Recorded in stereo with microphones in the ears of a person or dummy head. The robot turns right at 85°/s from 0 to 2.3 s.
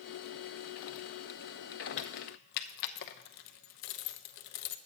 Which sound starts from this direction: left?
Keys jangling, at 2.0 s.